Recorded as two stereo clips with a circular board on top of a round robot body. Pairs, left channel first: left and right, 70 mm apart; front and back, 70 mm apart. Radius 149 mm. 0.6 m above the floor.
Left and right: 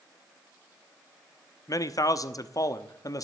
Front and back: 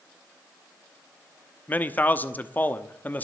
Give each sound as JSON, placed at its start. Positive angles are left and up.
{"t": 1.7, "sound": "a man speaking", "azimuth_deg": 65, "distance_m": 1.2}